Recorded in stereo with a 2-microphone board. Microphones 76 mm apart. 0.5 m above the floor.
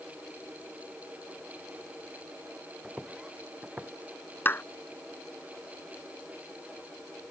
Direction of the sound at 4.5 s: 30° left (ahead or behind).